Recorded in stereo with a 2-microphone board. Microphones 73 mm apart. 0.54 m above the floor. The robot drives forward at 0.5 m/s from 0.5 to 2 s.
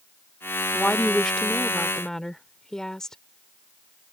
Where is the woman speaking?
10° left (ahead or behind).